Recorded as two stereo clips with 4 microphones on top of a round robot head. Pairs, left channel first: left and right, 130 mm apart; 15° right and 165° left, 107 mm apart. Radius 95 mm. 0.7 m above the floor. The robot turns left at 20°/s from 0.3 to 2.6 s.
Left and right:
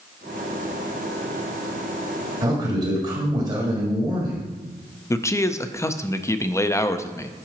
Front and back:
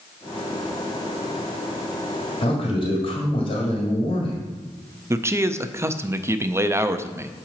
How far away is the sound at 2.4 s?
About 1.7 m.